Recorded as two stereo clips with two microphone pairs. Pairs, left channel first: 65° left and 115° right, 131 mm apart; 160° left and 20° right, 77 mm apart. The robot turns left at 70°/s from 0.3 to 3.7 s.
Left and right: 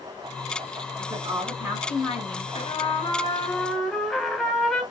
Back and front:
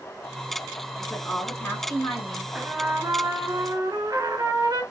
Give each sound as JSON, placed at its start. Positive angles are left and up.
{"t": 1.0, "sound": "a woman speaking", "azimuth_deg": -120, "distance_m": 1.6}
{"t": 2.5, "sound": "a trumpet", "azimuth_deg": 60, "distance_m": 0.8}